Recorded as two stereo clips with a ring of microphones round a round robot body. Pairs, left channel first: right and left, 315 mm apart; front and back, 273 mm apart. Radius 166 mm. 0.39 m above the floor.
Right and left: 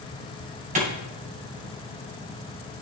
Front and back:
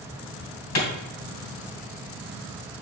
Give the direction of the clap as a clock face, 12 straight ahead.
11 o'clock.